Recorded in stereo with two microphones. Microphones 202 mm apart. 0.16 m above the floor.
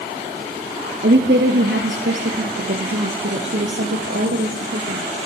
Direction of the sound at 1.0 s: 60° right (ahead or behind).